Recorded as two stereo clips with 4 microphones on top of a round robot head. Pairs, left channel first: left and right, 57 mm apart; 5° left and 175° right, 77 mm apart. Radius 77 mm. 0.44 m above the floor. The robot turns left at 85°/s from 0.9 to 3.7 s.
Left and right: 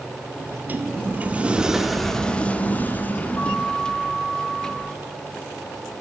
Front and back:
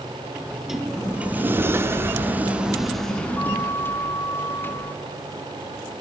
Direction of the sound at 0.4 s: 95° right.